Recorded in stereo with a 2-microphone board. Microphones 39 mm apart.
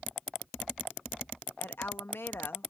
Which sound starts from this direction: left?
A woman speaking, at 1.6 s.